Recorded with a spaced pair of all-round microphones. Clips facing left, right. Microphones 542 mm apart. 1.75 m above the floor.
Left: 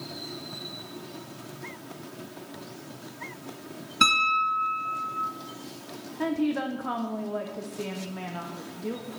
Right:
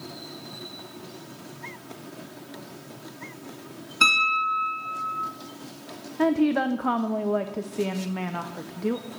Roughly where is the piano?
Left.